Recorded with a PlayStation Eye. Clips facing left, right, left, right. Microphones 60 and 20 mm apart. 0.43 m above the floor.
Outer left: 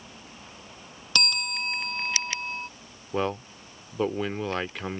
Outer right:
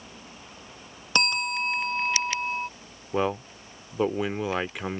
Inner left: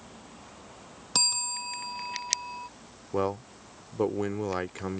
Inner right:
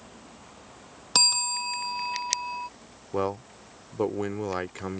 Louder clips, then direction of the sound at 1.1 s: Outer right 3 dB, inner right 5 dB; 30° right (ahead or behind).